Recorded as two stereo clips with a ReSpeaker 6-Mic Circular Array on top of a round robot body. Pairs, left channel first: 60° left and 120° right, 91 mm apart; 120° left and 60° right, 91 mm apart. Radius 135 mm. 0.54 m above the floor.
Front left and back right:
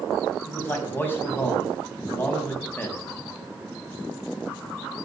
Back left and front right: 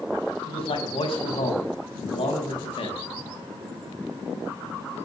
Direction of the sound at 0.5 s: 125° left.